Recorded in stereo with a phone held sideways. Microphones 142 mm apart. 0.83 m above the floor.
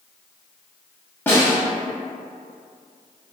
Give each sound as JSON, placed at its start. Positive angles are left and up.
{"t": 1.3, "sound": "a snare drum", "side_deg": 15, "distance_m": 0.9}